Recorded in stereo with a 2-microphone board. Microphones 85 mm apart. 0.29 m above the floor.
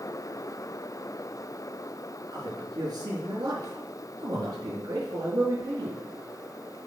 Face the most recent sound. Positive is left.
turn(degrees=-50)  # may be behind; listen again after turning